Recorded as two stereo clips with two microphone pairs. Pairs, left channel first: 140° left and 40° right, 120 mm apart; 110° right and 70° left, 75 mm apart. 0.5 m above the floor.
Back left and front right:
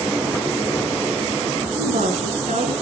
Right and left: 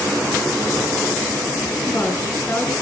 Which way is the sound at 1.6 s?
55° right.